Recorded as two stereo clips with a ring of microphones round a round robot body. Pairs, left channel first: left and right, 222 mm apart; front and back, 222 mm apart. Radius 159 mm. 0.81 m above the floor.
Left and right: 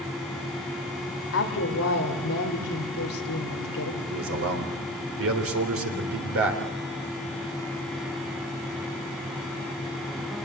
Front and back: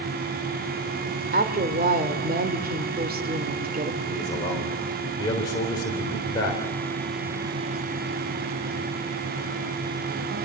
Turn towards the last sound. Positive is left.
turn(degrees=-80)